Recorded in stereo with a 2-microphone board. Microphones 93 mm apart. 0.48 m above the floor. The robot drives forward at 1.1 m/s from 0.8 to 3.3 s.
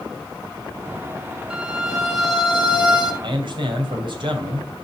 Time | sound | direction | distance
1.5 | a violin | 10° right (ahead or behind) | 2 m
3.2 | a man speaking | 60° right (ahead or behind) | 3 m